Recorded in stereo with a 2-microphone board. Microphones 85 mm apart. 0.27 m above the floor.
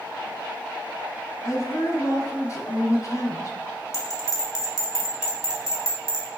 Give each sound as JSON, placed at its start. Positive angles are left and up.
{"t": 1.4, "sound": "a woman speaking", "side_deg": 45, "distance_m": 1.6}
{"t": 3.9, "sound": "a bell", "side_deg": 40, "distance_m": 1.7}